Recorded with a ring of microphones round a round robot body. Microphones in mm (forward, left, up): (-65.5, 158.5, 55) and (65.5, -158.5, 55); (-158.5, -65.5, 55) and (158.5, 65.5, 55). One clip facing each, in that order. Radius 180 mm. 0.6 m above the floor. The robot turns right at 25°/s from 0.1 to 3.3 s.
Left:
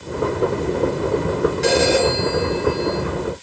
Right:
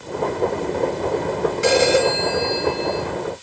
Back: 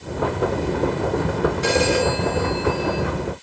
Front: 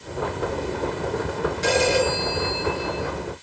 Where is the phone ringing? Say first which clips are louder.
Right 2 dB, front 1 dB; 15° left, 5.5 m; by 3.0 s 50° left, 5.5 m.